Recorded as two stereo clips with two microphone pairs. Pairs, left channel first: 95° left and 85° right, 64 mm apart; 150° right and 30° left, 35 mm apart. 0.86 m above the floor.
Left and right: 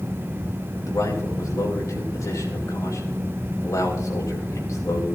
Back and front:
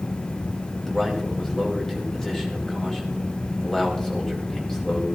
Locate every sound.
0.9 s a man speaking: 135° left, 4 m